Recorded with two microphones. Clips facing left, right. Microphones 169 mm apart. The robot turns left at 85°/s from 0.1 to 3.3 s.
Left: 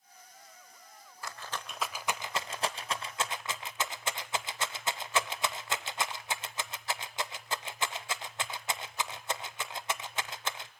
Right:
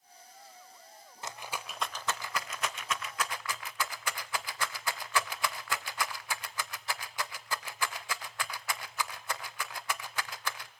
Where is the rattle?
20° right (ahead or behind), 0.7 m; by 10.7 s 25° left (ahead or behind), 0.7 m.